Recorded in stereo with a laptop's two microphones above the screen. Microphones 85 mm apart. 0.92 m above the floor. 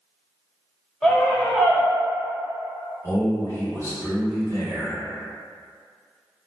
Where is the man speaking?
30° left (ahead or behind), 1.4 m.